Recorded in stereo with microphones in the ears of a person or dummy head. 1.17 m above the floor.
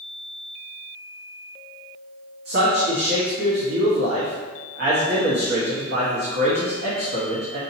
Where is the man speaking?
55° right (ahead or behind), 1.6 m.